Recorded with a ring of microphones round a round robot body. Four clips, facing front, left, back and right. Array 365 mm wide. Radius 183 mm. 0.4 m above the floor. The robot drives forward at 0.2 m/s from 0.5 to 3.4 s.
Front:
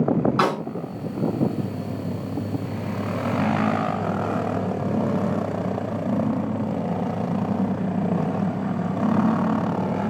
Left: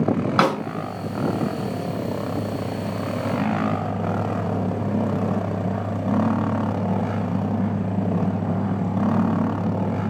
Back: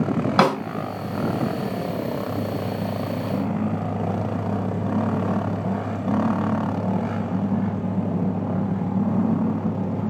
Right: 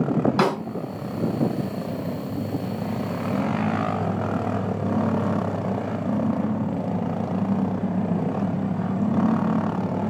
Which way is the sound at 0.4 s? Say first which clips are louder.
Left 5 dB, back 3 dB; 160° left.